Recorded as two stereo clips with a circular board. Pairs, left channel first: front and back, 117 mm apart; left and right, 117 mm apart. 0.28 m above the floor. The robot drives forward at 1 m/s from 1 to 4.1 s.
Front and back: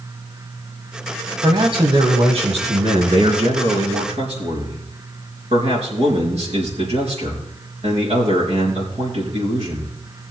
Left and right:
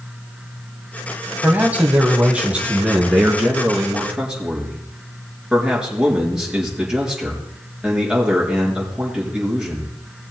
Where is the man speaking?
155° right, 1.4 m; by 9.9 s 175° right, 4 m.